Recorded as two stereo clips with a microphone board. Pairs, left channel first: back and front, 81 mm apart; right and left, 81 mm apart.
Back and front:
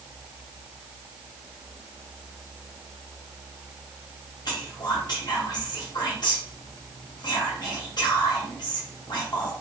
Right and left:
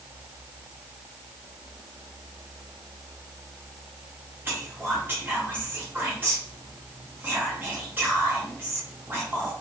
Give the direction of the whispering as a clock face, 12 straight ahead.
7 o'clock.